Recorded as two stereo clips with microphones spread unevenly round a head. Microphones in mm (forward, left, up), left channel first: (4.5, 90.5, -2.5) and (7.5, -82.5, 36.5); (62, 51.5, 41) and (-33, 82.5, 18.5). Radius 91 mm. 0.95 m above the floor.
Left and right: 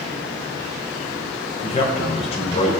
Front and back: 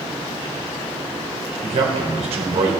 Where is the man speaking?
150° left, 3 m.